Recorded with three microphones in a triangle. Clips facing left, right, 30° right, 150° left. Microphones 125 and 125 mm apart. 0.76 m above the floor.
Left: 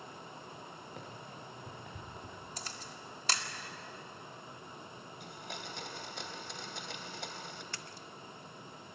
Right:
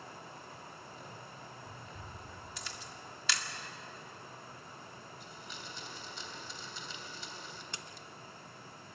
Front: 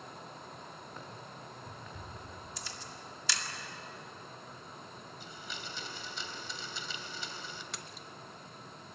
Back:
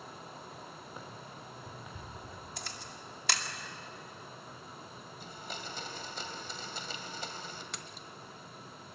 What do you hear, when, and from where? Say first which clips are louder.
1.0 s running footsteps: left 2 dB, even; 70° left, 6.5 m
2.6 s a camera shutter: left 1 dB, back 1 dB; 135° left, 2 m
5.2 s a blender: left 3 dB, back 4 dB; 110° left, 2.5 m
7.7 s a splash: left 1 dB, even; 115° right, 1.0 m